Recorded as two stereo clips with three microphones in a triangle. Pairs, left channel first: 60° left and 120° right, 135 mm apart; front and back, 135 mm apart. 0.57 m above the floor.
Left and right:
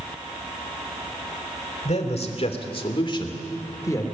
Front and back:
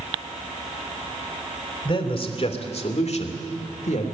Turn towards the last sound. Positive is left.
turn(degrees=-5)